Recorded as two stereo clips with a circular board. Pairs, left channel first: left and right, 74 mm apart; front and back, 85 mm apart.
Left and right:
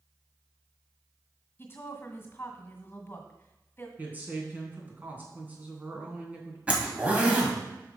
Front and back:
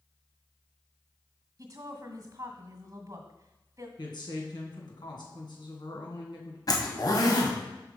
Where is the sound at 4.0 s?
25° right, 2.5 m.